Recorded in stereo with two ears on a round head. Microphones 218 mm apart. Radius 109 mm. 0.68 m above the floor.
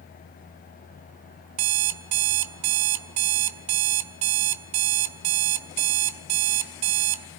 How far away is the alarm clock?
About 1.4 m.